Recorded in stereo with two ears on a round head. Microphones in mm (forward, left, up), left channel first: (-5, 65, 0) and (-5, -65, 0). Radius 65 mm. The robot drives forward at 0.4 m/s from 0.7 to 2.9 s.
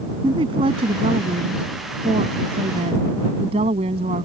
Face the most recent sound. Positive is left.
turn(degrees=-40)  # may be behind; listen again after turning